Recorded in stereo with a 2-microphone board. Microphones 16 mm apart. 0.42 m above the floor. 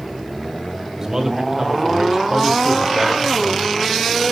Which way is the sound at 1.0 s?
25° right (ahead or behind).